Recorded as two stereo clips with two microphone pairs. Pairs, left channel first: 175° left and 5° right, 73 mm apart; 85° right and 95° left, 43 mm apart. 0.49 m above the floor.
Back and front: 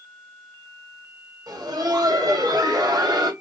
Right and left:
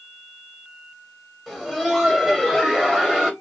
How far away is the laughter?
About 2.5 m.